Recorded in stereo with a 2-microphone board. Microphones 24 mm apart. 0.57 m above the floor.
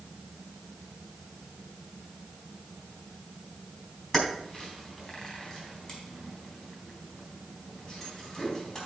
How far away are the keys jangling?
About 3.5 m.